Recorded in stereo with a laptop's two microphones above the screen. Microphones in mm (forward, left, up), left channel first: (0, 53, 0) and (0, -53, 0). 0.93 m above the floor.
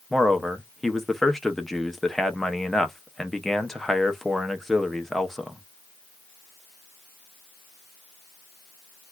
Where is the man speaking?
5° left (ahead or behind), 0.5 m.